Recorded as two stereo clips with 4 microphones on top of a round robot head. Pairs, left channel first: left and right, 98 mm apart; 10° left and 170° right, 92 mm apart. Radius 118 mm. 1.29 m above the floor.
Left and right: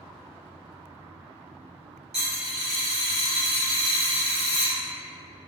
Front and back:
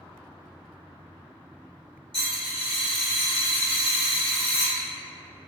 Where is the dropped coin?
120° right, 0.9 m.